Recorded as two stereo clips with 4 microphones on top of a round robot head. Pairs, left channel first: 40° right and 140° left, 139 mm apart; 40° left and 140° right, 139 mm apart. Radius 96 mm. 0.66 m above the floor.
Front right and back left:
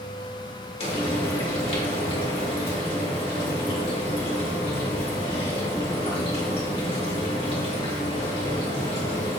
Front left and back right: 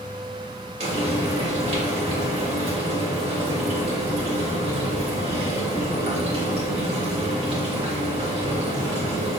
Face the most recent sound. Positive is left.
turn(degrees=-90)